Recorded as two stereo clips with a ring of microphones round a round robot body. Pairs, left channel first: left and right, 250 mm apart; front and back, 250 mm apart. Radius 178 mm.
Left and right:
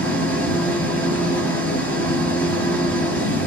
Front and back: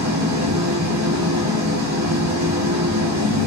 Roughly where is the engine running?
Behind.